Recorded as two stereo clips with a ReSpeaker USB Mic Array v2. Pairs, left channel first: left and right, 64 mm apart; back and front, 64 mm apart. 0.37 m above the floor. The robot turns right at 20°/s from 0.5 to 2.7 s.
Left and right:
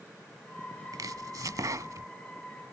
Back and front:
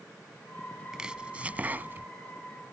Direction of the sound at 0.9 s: 80° right.